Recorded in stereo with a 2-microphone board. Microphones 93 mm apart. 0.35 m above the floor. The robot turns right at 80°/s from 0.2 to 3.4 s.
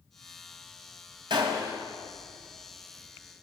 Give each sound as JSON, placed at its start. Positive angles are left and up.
{"t": 1.3, "sound": "a gunshot", "azimuth_deg": -75, "distance_m": 1.5}